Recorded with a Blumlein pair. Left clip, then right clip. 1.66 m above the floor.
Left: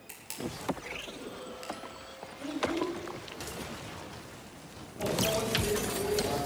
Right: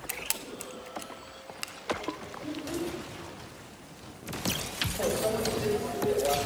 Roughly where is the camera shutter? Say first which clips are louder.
Right 3 dB; ahead right.